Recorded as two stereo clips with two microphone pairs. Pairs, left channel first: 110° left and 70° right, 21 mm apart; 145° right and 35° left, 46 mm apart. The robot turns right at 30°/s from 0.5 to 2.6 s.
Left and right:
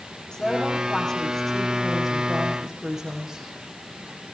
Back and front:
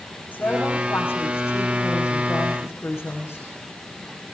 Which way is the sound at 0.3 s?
165° left.